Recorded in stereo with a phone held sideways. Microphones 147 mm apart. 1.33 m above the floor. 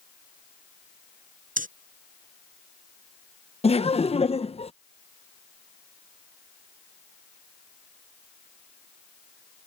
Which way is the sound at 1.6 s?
70° right (ahead or behind).